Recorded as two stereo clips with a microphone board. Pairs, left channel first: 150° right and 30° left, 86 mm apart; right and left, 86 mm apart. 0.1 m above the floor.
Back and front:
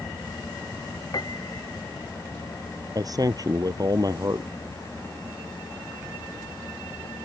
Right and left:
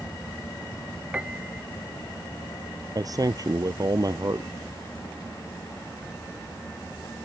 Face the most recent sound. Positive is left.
turn(degrees=60)